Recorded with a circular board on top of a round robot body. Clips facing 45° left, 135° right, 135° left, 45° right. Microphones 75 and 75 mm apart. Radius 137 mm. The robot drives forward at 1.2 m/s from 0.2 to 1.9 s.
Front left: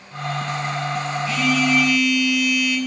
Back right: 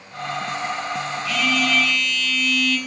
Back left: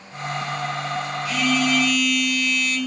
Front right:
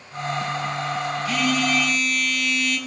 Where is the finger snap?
No finger snap in this recording.